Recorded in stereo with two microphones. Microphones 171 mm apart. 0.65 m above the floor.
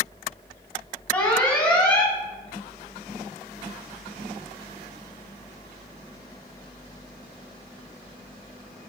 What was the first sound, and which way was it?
An alarm, 10° left (ahead or behind).